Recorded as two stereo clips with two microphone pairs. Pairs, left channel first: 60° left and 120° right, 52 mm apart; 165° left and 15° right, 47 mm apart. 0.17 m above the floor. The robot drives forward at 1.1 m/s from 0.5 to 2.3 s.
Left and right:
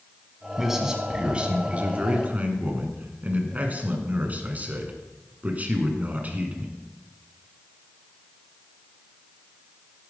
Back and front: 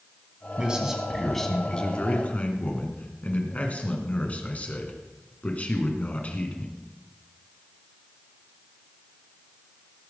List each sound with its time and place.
0.6 s a man speaking: 45° right, 1.7 m; by 6.7 s 160° right, 2 m